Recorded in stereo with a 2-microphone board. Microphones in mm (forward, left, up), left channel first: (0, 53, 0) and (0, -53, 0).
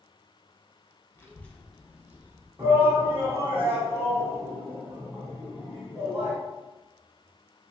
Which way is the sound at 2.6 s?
25° right (ahead or behind).